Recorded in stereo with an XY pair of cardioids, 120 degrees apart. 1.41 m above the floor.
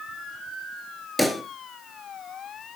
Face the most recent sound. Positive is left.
turn(degrees=5)